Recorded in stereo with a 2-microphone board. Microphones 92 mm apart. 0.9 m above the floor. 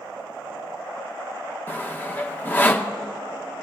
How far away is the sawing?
About 0.6 m.